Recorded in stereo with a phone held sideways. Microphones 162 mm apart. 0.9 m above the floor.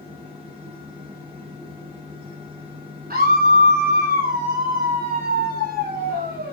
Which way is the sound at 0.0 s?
35° right (ahead or behind).